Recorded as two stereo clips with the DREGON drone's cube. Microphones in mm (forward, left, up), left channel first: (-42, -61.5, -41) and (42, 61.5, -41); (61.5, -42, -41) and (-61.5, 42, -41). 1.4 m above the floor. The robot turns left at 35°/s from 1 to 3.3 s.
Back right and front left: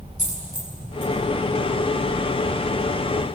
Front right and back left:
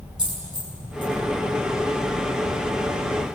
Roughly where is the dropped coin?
Behind right.